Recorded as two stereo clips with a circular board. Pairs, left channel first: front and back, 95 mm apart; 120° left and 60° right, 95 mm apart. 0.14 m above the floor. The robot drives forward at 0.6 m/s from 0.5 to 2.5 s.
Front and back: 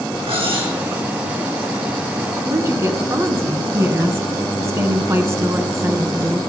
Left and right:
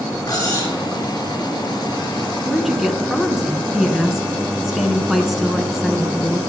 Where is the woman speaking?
145° right, 1.2 m.